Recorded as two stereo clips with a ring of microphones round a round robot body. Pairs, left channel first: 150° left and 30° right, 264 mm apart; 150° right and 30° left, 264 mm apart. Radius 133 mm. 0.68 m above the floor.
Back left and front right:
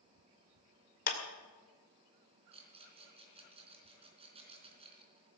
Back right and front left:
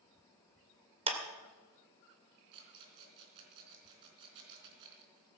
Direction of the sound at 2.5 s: 40° left.